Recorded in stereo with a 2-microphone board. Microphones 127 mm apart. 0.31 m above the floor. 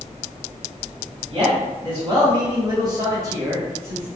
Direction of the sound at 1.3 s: 40° right (ahead or behind).